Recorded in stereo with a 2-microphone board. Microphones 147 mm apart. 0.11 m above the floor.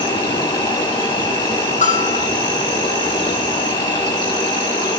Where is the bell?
50° left (ahead or behind), 4 m.